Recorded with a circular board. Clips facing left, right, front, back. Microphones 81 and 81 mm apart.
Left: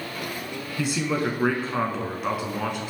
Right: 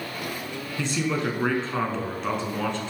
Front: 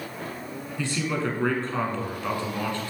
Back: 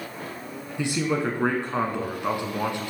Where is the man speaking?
155° left, 1.0 m.